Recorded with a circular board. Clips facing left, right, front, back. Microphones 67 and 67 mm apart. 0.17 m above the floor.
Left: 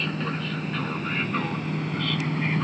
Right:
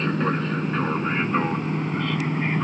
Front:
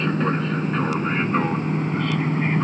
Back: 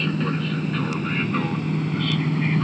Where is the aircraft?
45° right; by 2.6 s 35° right.